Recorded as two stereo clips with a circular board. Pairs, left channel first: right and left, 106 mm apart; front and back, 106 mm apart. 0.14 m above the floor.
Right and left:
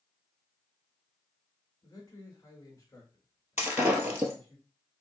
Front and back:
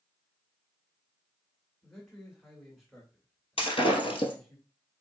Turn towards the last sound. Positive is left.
turn(degrees=15)